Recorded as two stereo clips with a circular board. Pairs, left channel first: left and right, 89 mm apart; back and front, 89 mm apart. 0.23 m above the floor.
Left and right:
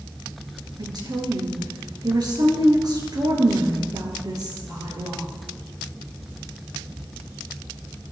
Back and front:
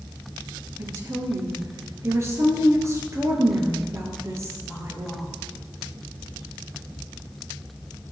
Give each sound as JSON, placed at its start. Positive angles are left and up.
{"t": 0.8, "sound": "a woman speaking", "azimuth_deg": -55, "distance_m": 4.0}